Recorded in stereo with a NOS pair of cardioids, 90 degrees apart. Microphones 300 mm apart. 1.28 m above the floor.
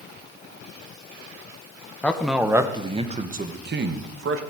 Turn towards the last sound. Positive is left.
turn(degrees=-50)